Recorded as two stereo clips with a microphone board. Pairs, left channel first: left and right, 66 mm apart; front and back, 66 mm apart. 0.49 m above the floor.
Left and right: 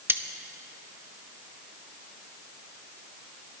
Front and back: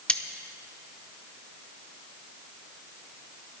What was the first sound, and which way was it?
Cutlery clinking, 65° right.